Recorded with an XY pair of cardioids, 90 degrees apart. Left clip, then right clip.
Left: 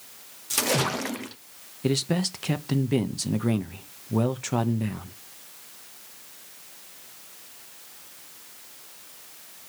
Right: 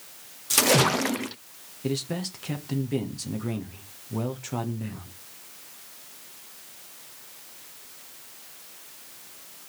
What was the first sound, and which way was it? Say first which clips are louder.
A splash: right 4 dB; 35° right.